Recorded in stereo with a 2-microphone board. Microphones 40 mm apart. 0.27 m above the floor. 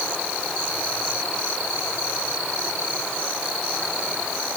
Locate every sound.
Only background noise.